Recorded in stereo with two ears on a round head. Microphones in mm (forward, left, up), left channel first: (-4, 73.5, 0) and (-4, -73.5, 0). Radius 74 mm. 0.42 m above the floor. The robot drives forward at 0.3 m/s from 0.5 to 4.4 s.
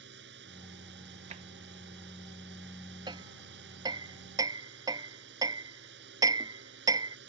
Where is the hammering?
25° right (ahead or behind).